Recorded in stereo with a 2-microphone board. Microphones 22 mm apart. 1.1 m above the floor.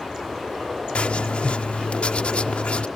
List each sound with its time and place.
0.9 s writing: 70° left (ahead or behind)